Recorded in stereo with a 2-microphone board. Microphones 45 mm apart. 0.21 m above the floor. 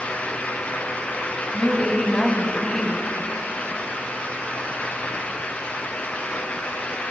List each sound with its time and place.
1.5 s a woman speaking: 20° left (ahead or behind), 1.6 m